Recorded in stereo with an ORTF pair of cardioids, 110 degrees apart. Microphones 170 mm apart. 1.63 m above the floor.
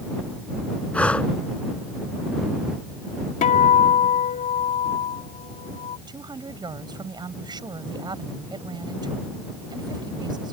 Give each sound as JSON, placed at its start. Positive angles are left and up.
{"t": 0.9, "sound": "breathing", "azimuth_deg": 5}
{"t": 3.4, "sound": "a guitar", "azimuth_deg": 50}
{"t": 6.1, "sound": "a woman speaking", "azimuth_deg": -25}